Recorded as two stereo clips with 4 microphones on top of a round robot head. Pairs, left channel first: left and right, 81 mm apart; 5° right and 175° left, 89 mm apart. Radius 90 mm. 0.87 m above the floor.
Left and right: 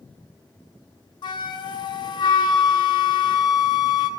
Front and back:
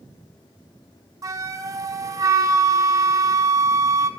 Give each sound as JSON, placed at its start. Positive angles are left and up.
{"t": 1.2, "sound": "a flute", "azimuth_deg": 120, "distance_m": 0.6}